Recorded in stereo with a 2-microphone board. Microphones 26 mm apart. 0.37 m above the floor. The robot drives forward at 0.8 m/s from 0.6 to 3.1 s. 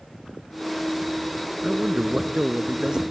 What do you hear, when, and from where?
1.6 s a man speaking: 35° right (ahead or behind); by 3.0 s 25° right (ahead or behind)